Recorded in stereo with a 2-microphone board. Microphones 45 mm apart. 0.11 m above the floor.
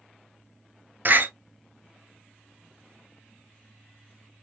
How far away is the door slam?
About 1.1 m.